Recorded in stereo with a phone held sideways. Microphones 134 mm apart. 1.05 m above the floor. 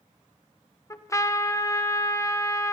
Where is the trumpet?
20° left (ahead or behind), 0.8 m.